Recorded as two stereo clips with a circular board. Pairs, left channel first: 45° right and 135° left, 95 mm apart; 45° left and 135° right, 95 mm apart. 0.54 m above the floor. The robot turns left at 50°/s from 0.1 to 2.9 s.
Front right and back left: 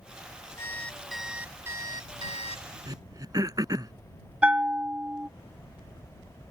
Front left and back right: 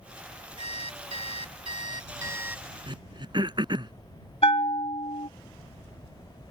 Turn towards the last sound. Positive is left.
turn(degrees=60)